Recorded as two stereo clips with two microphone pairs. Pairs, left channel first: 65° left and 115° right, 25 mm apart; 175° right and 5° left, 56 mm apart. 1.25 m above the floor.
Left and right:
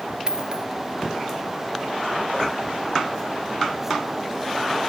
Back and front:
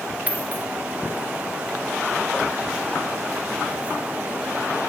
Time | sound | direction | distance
0.3 | a dropped coin | 60° right | ?